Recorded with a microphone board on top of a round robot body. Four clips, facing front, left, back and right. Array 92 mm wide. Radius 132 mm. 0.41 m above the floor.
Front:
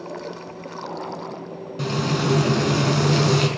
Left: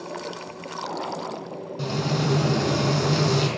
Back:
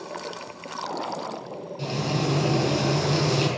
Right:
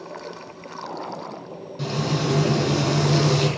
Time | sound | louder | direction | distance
1.8 | frying | right 1 dB, front 4 dB | 5° left | 4 m